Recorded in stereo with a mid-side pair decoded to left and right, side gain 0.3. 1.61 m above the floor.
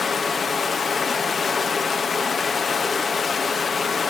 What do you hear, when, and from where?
0.0 s running water: 50° left, 1.9 m